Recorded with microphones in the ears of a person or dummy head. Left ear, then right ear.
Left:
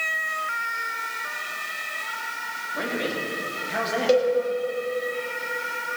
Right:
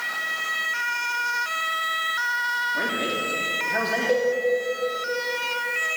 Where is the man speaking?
5° left (ahead or behind), 3.5 m.